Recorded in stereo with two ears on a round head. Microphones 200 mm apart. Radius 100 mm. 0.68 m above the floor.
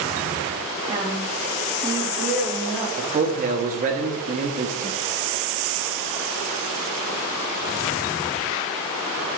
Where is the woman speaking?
25° right (ahead or behind), 1.0 m; by 2.9 s 15° right (ahead or behind), 2.5 m.